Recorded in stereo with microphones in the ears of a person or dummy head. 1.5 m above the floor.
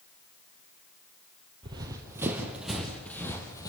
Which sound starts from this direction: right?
Running footsteps, at 1.6 s.